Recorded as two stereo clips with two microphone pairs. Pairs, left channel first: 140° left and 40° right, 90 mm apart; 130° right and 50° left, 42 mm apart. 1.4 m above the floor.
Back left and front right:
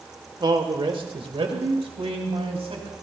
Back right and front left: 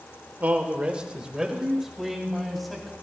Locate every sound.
0.4 s a man speaking: 5° left, 1.3 m; by 2.9 s 40° right, 3 m